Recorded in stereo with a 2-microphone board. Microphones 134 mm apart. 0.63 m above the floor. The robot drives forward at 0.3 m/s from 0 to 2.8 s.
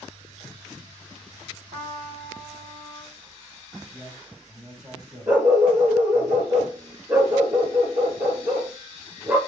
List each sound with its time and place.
1.7 s a trumpet: 45° right (ahead or behind), 4 m; by 3.2 s 40° right (ahead or behind), 4 m
3.9 s a man speaking: 10° right (ahead or behind), 3 m
5.3 s a dog barking: 15° right (ahead or behind), 2.5 m